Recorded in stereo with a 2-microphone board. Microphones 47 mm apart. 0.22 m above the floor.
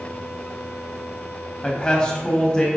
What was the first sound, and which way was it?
A man speaking, 20° left (ahead or behind).